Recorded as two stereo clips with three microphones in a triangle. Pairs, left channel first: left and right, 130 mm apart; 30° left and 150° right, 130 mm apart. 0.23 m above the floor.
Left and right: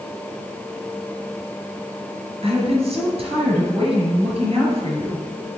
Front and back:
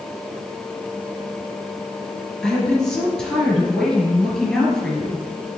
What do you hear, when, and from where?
2.4 s a woman speaking: 55° right, 3 m